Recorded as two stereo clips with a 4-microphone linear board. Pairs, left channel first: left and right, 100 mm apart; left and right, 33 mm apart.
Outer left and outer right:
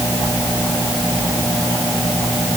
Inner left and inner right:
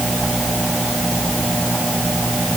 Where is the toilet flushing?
No toilet flushing in this recording.